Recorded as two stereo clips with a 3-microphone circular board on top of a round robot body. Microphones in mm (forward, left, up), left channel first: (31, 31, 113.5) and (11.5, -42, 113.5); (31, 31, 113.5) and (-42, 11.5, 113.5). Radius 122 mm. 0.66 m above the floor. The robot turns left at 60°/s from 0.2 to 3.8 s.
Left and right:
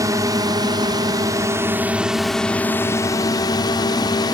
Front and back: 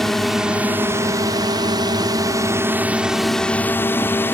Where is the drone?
70° right; by 4.3 s 70° left.